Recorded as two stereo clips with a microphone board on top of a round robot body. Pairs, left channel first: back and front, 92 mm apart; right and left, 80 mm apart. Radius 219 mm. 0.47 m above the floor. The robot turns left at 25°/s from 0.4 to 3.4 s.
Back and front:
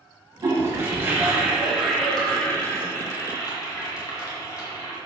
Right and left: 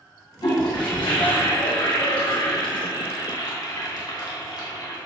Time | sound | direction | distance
0.4 | a toilet flushing | 55° right | 2 m